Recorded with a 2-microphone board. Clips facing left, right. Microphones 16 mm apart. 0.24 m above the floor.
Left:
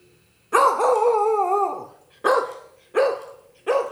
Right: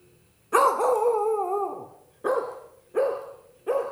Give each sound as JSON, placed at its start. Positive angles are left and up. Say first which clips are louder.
{"t": 0.5, "sound": "a dog barking", "louder": "left 3 dB", "side_deg": 15, "distance_m": 0.9}